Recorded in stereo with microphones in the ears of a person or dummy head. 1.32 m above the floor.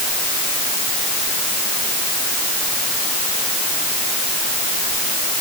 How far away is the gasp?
I don't hear a gasp.